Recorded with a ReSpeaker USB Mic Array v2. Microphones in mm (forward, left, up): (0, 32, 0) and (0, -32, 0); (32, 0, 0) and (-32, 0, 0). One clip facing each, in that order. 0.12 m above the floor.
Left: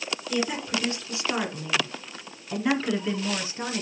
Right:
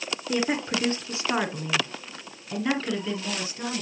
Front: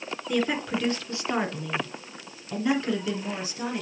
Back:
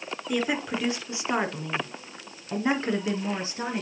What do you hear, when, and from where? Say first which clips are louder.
0.3 s a woman speaking: right 2 dB, front 1 dB; 100° right, 2 m; by 3.8 s 140° left, 2.5 m